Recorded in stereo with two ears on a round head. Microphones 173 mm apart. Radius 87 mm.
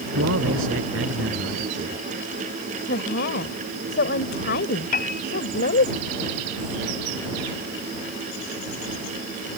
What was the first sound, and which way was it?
A man speaking, 75° right (ahead or behind).